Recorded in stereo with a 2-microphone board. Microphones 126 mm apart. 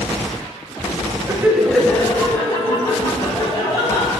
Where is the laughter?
25° right (ahead or behind), 0.9 m; by 4.1 s 35° left (ahead or behind), 4 m.